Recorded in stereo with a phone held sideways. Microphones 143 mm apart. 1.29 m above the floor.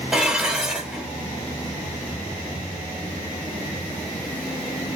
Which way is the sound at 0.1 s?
5° right (ahead or behind).